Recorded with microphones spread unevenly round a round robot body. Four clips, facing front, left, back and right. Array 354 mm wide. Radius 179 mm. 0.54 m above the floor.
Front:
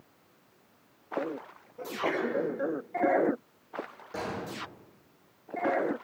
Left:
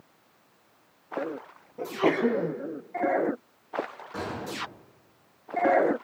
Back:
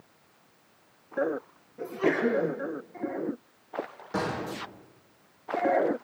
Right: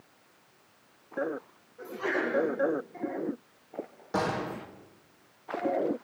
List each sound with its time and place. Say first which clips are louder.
1.8 s a sneeze: left 7 dB, back 5 dB; 115° left, 5.5 m
4.1 s a gunshot: right 5 dB, back 5 dB; 145° right, 9 m